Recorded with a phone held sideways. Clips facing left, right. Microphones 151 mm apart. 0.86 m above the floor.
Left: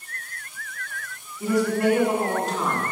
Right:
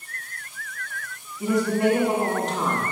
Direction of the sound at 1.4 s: 20° right (ahead or behind).